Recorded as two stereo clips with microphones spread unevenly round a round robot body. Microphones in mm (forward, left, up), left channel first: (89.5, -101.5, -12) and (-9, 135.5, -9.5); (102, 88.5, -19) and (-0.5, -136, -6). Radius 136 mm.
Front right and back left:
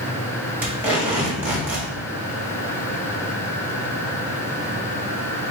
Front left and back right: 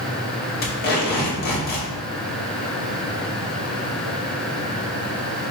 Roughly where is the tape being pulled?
Ahead left.